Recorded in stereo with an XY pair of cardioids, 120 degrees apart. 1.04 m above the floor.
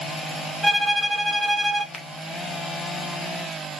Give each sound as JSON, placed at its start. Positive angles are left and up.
{"t": 0.6, "sound": "a violin", "azimuth_deg": -10, "distance_m": 1.0}
{"t": 1.9, "sound": "a finger snap", "azimuth_deg": 10, "distance_m": 0.9}